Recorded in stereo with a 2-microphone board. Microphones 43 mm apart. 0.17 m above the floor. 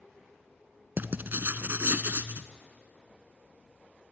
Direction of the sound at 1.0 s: 50° right (ahead or behind).